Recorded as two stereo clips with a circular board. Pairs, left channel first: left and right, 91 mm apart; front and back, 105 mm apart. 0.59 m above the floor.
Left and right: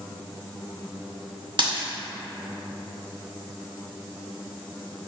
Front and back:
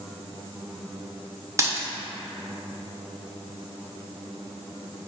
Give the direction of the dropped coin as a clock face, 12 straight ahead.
4 o'clock.